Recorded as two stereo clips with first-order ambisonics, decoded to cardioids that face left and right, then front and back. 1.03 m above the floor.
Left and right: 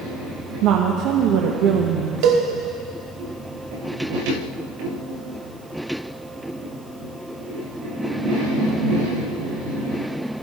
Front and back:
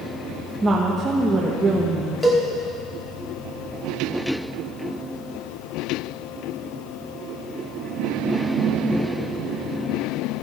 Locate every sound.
0.6 s a woman speaking: 105° right, 1.2 m
2.2 s a cowbell: 80° right, 1.6 m